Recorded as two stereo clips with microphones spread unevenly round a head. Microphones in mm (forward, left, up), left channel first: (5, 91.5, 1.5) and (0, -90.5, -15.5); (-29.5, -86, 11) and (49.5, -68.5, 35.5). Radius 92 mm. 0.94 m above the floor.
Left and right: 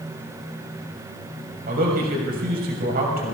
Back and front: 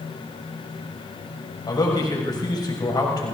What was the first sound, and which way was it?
A man speaking, 135° right.